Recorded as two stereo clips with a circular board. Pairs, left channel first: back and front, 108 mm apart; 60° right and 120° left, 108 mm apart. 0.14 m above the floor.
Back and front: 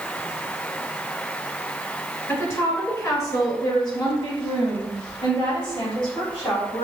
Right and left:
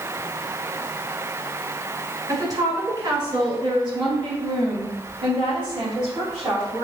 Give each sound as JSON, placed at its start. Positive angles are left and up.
{"t": 2.3, "sound": "a woman speaking", "azimuth_deg": 135, "distance_m": 1.6}